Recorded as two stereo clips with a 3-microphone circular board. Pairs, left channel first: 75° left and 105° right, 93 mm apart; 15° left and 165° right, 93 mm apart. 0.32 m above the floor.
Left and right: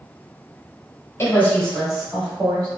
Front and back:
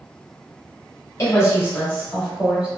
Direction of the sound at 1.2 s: 35° left.